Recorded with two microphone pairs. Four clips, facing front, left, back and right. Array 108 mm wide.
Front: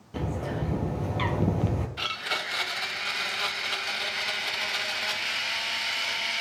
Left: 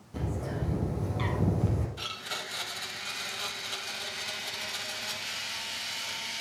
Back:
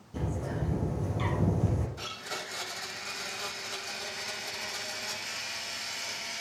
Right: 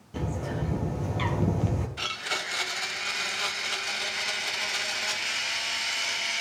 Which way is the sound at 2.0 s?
25° right.